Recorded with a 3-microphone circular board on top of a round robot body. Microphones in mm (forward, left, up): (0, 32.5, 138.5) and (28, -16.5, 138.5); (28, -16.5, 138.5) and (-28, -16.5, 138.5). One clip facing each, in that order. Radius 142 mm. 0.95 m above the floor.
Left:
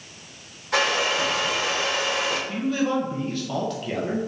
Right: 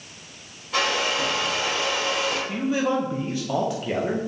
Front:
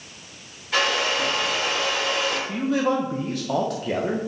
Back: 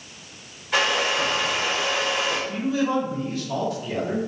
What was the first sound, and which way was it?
A hair dryer, 100° left.